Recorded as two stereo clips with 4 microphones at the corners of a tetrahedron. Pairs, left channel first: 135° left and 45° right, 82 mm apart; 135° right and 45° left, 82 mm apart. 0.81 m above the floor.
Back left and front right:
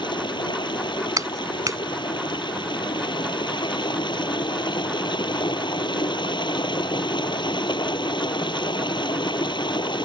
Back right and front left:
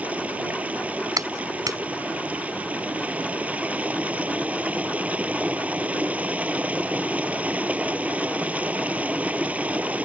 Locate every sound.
0.0 s running water: 115° left
1.2 s a clap: straight ahead